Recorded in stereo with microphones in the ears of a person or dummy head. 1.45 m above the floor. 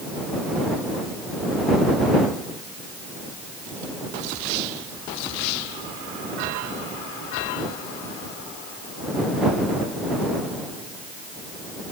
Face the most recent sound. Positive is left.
No sound to turn to.